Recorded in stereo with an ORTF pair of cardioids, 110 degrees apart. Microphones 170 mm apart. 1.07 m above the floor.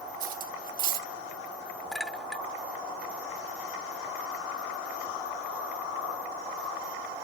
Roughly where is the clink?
Ahead.